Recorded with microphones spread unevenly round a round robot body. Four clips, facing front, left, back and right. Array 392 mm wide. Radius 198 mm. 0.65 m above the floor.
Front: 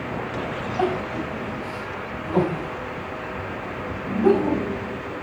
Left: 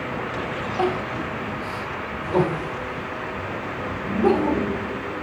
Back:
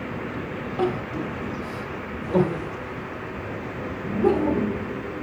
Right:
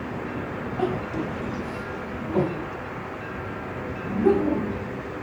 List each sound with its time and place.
0.8 s crying: 160° left, 2.5 m